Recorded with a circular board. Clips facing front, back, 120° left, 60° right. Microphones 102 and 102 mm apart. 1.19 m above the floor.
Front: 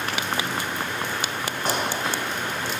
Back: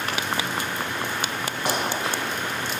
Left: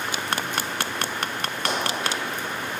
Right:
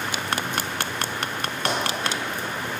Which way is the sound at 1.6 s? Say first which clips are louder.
Even, right 1 dB; 110° right.